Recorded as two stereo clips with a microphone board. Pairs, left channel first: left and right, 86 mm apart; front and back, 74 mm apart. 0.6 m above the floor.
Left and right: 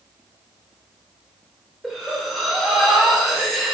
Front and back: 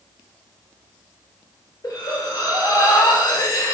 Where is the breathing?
Straight ahead, 0.7 m.